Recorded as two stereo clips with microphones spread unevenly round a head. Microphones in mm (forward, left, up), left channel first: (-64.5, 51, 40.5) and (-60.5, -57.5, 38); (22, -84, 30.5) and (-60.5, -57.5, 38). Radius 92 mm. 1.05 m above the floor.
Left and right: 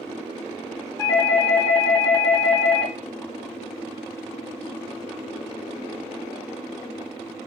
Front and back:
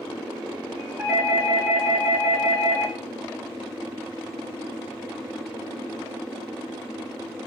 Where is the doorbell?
85° left, 1.3 m.